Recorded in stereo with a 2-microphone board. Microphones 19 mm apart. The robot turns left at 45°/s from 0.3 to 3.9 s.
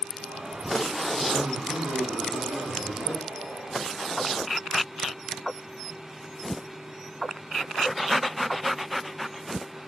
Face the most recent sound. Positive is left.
turn(degrees=170)